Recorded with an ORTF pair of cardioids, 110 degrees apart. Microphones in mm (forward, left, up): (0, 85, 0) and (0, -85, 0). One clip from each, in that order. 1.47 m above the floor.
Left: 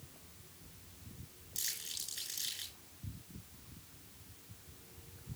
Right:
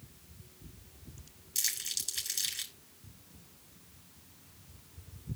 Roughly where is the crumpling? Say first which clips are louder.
Right 7 dB; ahead right.